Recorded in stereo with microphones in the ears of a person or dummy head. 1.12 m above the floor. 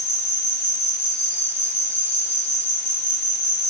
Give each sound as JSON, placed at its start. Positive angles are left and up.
{"t": 0.0, "sound": "an insect", "side_deg": 45, "distance_m": 8.5}